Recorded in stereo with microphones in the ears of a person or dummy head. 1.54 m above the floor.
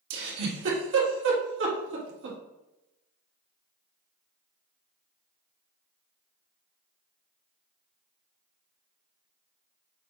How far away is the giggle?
About 1.4 m.